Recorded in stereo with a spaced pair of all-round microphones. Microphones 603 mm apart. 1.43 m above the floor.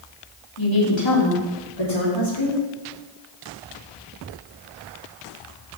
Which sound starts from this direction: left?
A woman speaking, at 0.6 s.